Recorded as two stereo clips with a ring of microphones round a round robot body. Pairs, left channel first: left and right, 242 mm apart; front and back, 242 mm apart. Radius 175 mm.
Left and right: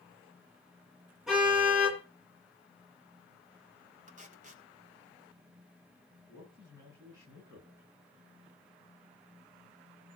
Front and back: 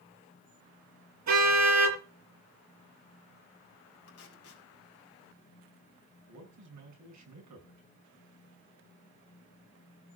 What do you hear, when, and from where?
1.3 s a car horn: straight behind, 8.5 m
4.1 s tape being pulled: 35° right, 3.5 m
6.3 s a man speaking: 170° right, 7 m